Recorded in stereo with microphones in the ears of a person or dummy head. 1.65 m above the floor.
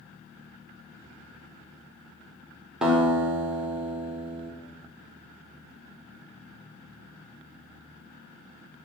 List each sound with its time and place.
2.8 s a guitar: 5° right (ahead or behind), 1.4 m